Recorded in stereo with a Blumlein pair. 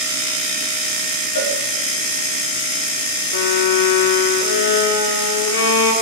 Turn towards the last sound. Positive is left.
turn(degrees=65)